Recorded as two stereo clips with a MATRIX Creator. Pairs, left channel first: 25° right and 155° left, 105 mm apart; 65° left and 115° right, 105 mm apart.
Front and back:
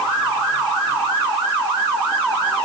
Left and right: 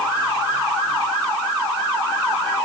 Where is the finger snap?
I don't hear a finger snap.